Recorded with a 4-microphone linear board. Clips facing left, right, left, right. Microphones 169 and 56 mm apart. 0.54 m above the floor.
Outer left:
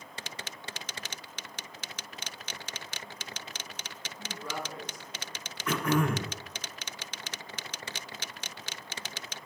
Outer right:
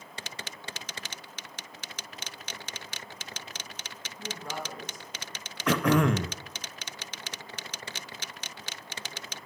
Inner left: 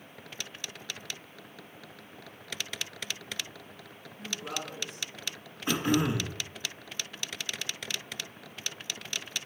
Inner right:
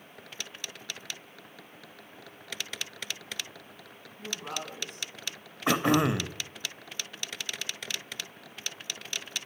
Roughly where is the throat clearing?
Right.